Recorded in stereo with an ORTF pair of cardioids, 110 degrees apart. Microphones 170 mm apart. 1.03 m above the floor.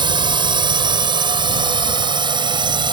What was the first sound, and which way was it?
A drone, 30° right.